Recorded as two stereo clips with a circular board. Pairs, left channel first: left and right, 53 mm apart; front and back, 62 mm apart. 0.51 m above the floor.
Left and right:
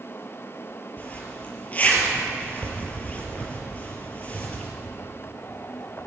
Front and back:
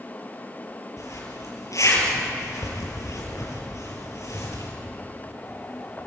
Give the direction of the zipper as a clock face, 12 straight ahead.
11 o'clock.